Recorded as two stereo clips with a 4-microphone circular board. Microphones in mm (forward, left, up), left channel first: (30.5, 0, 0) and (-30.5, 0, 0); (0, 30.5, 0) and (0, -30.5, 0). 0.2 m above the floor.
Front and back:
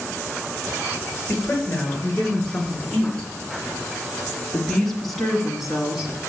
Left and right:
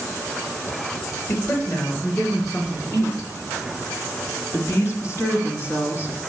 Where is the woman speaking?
60° left, 3.5 m; by 6.2 s 105° left, 1.6 m.